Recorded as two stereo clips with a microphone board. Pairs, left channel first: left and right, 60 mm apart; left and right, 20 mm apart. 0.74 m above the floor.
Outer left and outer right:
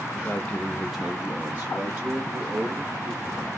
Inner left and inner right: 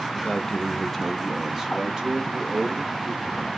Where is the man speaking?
30° left (ahead or behind), 0.7 m; by 3.5 s 50° right (ahead or behind), 1.7 m.